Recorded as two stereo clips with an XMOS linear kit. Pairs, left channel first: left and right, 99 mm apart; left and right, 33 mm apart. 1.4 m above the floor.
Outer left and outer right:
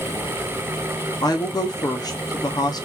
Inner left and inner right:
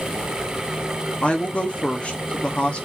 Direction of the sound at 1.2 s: 40° left (ahead or behind).